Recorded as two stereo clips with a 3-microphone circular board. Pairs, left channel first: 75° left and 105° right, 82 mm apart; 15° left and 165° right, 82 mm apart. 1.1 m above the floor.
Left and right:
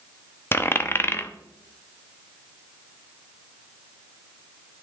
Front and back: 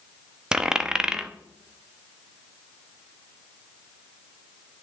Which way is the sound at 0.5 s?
120° left.